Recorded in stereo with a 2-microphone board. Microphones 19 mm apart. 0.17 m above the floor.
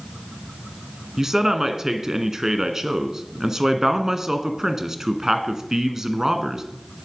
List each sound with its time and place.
1.2 s a man speaking: 25° right (ahead or behind), 1.8 m